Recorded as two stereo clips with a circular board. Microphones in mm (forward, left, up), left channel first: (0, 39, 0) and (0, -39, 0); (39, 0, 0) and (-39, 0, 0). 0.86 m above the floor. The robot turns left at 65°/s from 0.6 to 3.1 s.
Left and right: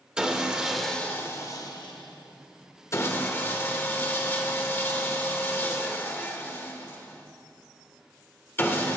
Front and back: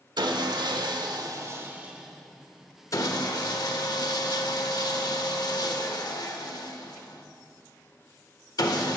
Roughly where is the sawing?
Behind.